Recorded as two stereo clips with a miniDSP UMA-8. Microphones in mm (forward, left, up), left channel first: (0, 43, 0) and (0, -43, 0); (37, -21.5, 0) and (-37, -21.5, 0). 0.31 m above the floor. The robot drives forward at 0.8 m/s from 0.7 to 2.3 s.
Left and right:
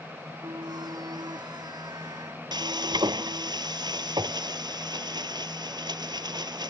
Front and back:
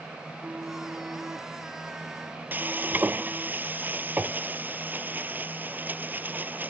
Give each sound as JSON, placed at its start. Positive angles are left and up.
{"t": 0.2, "sound": "a phone buzzing", "azimuth_deg": -115}
{"t": 2.5, "sound": "frying", "azimuth_deg": -115}